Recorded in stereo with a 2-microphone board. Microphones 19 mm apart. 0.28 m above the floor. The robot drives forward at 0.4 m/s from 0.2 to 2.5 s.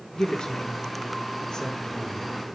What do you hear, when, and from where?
0.1 s a woman speaking: 45° left (ahead or behind), 3.5 m; by 2.2 s 35° left (ahead or behind), 4 m